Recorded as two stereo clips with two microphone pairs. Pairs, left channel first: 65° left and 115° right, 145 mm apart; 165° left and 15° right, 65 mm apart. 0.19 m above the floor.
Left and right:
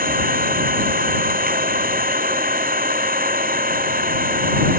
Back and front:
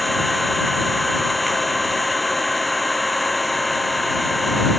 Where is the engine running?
105° right.